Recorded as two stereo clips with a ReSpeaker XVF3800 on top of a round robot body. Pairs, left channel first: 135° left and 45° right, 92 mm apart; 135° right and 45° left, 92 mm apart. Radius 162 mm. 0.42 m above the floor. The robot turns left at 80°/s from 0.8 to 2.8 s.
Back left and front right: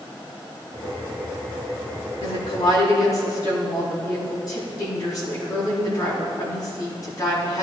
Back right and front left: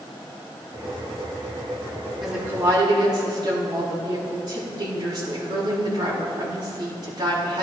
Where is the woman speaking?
135° left, 4.5 m; by 7.6 s 90° left, 4.5 m.